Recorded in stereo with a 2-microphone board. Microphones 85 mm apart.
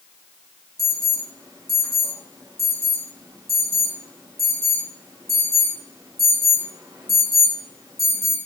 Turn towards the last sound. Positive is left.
turn(degrees=-35)  # may be behind; listen again after turning